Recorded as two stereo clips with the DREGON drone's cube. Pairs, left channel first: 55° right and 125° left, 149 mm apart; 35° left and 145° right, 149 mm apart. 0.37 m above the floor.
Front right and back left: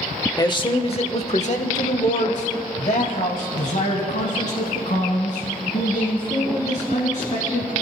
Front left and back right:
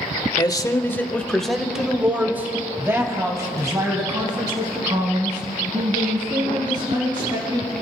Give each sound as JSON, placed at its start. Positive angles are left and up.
{"t": 0.4, "sound": "a man speaking", "azimuth_deg": -10, "distance_m": 1.1}